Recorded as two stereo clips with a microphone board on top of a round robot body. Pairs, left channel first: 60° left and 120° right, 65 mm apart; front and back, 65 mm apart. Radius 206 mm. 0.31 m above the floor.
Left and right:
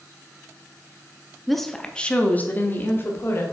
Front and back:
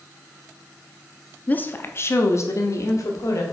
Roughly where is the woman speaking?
Ahead right.